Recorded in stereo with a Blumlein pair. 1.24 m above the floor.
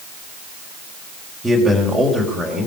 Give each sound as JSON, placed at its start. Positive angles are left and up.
{"t": 1.4, "sound": "a man speaking", "azimuth_deg": 0, "distance_m": 4.5}